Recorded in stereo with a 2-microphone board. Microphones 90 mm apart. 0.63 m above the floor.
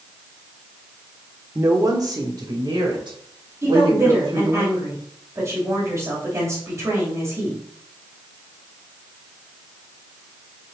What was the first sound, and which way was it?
A woman speaking, 30° right (ahead or behind).